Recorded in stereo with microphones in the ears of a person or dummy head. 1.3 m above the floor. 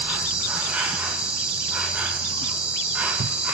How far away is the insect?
About 1.4 m.